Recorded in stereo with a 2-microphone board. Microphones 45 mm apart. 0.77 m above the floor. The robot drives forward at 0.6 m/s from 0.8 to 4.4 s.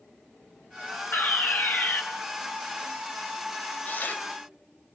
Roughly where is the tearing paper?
Left.